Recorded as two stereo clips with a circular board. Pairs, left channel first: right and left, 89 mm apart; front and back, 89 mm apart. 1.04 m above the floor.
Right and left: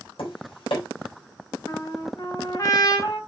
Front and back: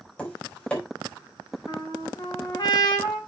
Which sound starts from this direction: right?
Tapping, at 0.2 s.